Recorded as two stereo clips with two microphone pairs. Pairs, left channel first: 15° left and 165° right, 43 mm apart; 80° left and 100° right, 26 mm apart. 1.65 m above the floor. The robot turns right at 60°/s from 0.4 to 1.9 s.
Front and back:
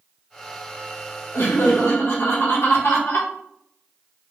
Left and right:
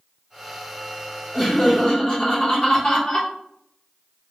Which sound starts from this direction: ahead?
Laughter, at 1.3 s.